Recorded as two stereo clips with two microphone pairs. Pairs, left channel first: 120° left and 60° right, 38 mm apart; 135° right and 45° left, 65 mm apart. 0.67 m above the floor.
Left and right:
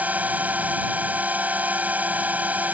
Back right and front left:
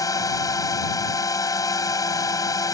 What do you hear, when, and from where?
0.0 s a drone: 105° right